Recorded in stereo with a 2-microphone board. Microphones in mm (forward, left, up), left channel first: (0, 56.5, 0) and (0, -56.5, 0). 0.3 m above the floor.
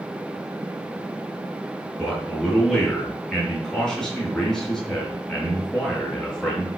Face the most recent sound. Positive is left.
turn(degrees=5)  # may be behind; listen again after turning